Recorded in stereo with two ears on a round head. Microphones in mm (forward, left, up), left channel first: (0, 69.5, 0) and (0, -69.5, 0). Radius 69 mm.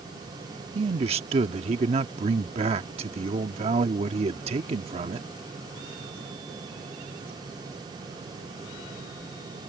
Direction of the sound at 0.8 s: 40° right (ahead or behind).